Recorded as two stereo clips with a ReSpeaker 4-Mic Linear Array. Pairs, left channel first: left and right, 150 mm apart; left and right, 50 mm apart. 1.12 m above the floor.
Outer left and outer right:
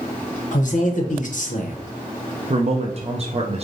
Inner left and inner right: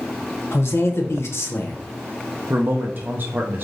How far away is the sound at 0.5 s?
About 0.9 m.